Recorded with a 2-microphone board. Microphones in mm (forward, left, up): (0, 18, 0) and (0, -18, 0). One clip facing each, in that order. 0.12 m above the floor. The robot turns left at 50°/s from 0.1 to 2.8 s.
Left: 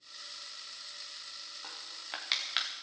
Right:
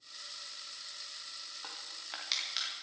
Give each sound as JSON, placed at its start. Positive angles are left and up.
{"t": 1.6, "sound": "crushing", "side_deg": -15, "distance_m": 2.5}